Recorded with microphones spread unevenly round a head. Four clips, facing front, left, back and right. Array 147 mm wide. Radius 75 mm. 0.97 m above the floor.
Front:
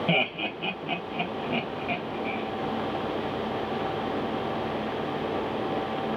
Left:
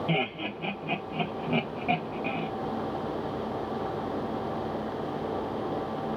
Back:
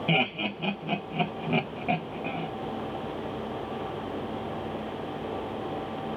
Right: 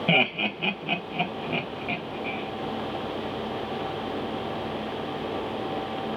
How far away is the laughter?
About 0.9 m.